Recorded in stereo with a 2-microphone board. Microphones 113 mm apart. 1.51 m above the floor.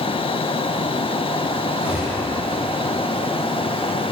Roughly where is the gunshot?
Centre.